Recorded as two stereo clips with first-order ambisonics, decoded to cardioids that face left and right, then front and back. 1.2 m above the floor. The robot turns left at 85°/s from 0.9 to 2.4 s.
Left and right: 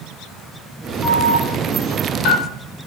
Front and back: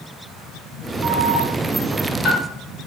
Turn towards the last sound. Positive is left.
turn(degrees=70)